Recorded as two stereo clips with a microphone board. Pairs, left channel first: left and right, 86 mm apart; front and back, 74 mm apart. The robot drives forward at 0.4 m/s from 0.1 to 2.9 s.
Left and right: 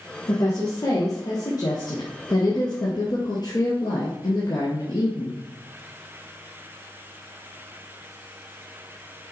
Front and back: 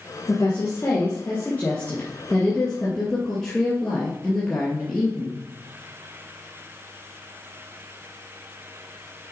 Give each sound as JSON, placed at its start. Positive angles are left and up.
{"t": 0.3, "sound": "a woman speaking", "azimuth_deg": 50, "distance_m": 2.5}